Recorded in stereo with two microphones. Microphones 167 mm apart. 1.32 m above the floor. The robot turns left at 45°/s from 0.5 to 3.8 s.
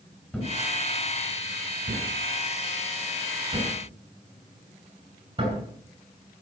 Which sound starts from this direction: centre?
A thud, at 0.3 s.